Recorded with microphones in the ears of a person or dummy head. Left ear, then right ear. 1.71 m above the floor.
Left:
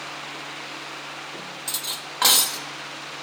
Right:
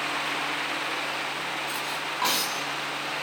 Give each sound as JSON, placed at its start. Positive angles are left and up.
{"t": 1.7, "sound": "cutlery clinking", "side_deg": 35, "distance_m": 1.7}